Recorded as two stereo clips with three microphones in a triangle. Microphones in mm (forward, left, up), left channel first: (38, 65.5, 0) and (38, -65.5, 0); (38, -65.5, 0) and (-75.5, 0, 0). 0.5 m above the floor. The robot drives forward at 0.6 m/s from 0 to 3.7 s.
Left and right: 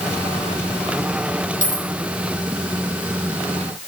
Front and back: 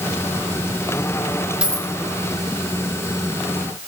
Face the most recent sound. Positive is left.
turn(degrees=85)